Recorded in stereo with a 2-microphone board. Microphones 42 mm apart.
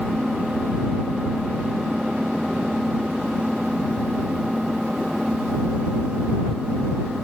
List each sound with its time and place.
0.0 s an engine running: 15° right (ahead or behind)